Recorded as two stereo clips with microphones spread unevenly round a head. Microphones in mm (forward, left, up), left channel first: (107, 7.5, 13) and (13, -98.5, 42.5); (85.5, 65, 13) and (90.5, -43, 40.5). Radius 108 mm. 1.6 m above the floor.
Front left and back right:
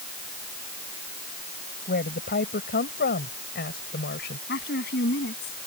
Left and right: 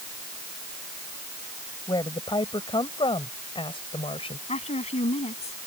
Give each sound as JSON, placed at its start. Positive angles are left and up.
{"t": 1.9, "sound": "a woman speaking", "azimuth_deg": 40}
{"t": 4.5, "sound": "a woman speaking", "azimuth_deg": 70}